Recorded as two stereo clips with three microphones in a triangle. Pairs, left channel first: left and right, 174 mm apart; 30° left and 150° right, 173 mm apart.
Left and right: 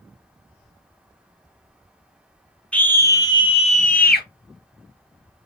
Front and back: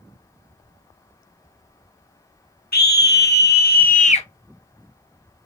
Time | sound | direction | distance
2.7 | a scream | 10° left | 1.0 m